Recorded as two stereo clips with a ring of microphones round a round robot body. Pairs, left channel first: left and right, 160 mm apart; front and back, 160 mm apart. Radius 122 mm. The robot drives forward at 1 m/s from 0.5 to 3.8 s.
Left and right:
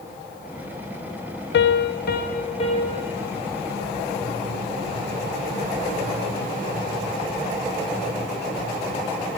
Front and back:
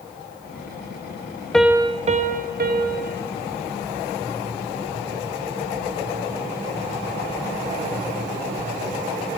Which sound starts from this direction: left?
A piano, at 1.5 s.